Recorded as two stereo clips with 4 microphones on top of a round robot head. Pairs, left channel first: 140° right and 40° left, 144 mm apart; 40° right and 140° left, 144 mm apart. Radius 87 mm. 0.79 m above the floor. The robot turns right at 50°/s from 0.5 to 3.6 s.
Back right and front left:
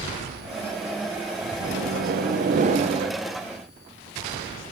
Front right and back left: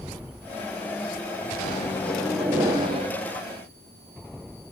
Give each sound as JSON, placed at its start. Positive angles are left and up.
{"t": 1.6, "sound": "a microwave", "azimuth_deg": 20, "distance_m": 0.8}